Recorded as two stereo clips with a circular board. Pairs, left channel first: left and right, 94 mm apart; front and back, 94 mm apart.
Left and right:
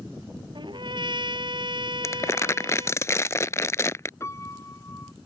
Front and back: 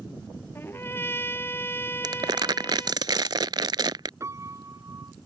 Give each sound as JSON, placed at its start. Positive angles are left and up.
{"t": 0.6, "sound": "a trumpet", "azimuth_deg": -65}
{"t": 2.0, "sound": "crumpling", "azimuth_deg": 145}
{"t": 4.2, "sound": "a piano", "azimuth_deg": 135}